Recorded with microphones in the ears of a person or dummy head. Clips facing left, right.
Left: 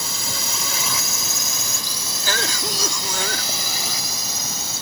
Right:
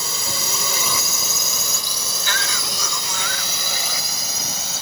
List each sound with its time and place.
0.0 s a drone: 70° right (ahead or behind); by 4.8 s 60° right (ahead or behind)
2.2 s a cough: 35° left (ahead or behind)